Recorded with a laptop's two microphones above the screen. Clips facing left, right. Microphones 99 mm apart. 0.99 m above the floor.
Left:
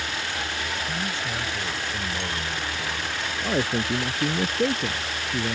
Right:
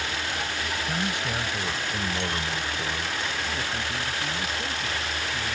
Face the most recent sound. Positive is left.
turn(degrees=55)  # may be behind; listen again after turning